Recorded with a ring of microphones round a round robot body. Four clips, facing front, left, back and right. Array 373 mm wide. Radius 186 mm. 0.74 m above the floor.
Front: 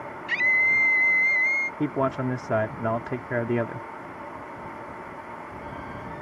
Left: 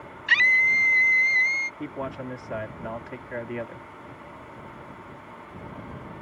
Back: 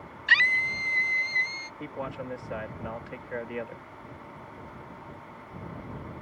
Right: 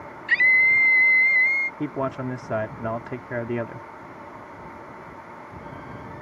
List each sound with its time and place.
0.3 s a scream: 140° left
1.8 s a man speaking: 25° right